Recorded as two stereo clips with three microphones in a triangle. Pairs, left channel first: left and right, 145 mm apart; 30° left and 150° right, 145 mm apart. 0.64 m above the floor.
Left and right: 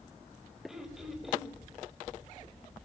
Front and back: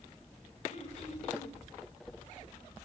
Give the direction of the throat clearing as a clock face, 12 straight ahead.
12 o'clock.